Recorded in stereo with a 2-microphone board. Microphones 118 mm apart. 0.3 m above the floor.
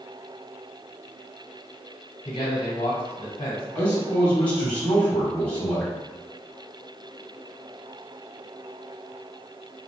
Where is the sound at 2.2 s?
45° left (ahead or behind), 1.4 m.